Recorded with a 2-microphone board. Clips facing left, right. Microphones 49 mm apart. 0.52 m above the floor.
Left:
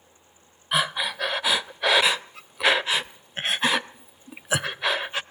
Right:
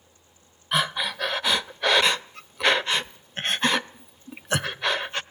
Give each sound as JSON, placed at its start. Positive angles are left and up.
{"t": 0.7, "sound": "breathing", "side_deg": 5, "distance_m": 0.5}